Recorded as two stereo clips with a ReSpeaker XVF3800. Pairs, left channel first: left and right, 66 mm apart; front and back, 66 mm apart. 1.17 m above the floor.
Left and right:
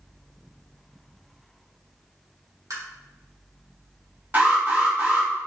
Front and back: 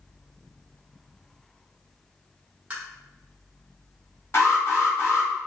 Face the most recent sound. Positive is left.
turn(degrees=-40)